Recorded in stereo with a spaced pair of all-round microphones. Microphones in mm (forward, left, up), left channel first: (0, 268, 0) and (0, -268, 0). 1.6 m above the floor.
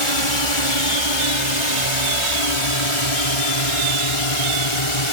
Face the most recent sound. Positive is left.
turn(degrees=70)  # may be behind; listen again after turning